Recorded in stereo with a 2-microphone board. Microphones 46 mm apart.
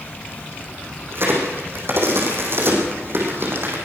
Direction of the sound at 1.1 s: 55° right (ahead or behind).